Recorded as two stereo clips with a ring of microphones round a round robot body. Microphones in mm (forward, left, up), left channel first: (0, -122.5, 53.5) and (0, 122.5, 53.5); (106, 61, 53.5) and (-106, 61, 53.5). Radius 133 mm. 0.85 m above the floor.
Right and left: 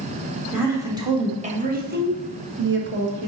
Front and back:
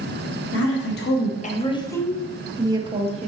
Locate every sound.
0.5 s a woman speaking: 10° left, 1.8 m; by 3.3 s 125° left, 1.8 m